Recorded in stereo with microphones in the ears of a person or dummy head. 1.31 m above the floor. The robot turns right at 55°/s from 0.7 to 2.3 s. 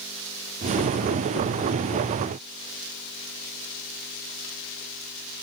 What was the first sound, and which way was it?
Only background noise.